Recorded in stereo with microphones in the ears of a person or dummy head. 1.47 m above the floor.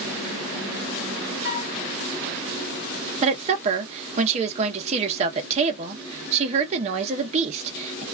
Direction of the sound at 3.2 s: 40° right (ahead or behind).